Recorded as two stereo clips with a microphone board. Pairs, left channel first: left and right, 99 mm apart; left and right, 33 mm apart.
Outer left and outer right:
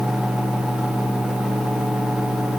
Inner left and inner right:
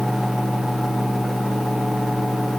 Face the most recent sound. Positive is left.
No sound to turn to.